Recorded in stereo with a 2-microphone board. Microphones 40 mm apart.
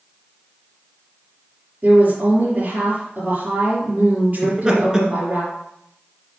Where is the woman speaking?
50° right (ahead or behind), 4 m.